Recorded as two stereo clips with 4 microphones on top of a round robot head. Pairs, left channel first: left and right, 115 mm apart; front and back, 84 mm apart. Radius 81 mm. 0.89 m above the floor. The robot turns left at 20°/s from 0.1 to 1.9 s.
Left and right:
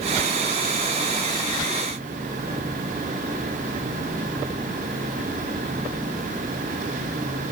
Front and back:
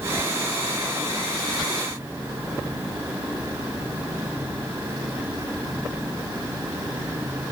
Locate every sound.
Only background noise.